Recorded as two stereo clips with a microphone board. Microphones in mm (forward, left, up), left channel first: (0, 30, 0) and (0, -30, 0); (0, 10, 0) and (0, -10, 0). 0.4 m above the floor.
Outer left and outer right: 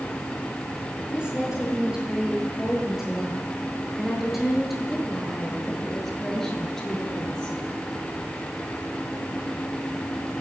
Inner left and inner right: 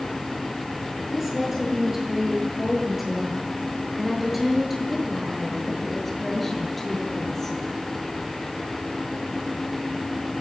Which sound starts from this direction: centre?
A woman speaking, at 1.1 s.